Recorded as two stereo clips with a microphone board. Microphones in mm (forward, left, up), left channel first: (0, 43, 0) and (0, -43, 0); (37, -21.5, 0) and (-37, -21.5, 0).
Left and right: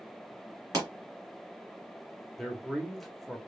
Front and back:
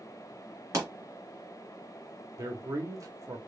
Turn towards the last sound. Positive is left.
turn(degrees=180)